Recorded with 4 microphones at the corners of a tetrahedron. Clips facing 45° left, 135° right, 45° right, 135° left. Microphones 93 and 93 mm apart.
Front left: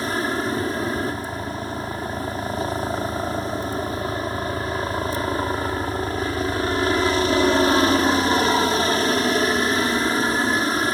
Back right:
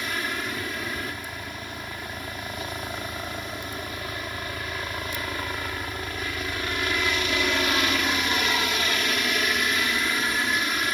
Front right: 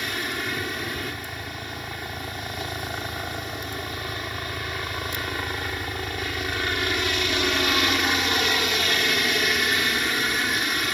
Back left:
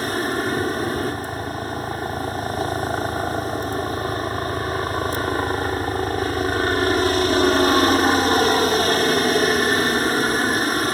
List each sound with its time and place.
0.0 s a helicopter: 90° left